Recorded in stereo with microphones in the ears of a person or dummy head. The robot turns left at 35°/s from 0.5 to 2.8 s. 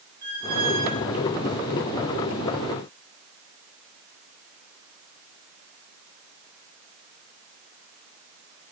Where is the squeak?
40° right (ahead or behind), 4.5 m; by 1.1 s 20° right (ahead or behind), 4.5 m.